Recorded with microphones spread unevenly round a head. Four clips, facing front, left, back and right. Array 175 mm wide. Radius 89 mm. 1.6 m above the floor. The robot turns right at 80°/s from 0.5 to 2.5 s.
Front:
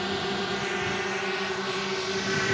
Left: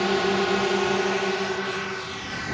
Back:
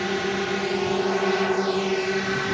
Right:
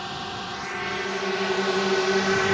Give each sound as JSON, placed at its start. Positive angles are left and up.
{"t": 0.0, "sound": "a drone", "azimuth_deg": 110}